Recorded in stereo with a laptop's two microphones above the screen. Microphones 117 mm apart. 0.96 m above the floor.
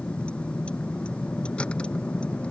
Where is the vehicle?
10° left (ahead or behind).